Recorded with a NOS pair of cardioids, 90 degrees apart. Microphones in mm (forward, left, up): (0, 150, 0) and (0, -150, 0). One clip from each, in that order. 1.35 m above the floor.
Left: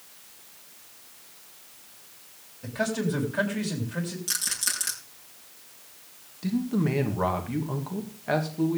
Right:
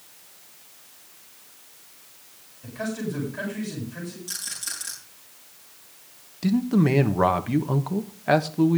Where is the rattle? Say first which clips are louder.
Left 5 dB; 55° left, 6.5 m.